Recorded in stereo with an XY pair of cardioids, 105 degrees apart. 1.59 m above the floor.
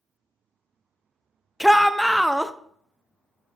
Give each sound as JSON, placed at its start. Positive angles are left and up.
{"t": 1.6, "sound": "a shout", "azimuth_deg": 0, "distance_m": 0.6}